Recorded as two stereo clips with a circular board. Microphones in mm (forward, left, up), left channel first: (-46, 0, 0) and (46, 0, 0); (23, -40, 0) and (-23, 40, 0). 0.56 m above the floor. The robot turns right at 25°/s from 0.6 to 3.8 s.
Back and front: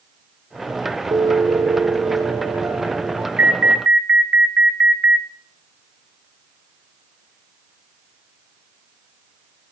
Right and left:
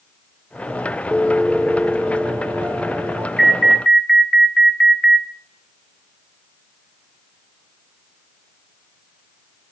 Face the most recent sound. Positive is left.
turn(degrees=45)